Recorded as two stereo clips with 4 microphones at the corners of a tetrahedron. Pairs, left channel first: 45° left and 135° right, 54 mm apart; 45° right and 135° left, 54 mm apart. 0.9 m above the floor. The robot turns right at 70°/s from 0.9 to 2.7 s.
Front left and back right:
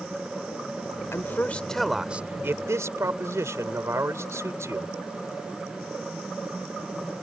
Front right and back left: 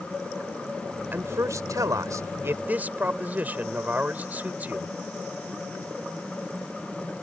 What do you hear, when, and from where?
1.1 s a man speaking: 85° left; by 4.9 s 165° right